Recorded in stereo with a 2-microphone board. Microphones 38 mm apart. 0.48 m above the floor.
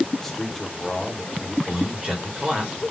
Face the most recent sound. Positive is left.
turn(degrees=-20)  # may be behind; listen again after turning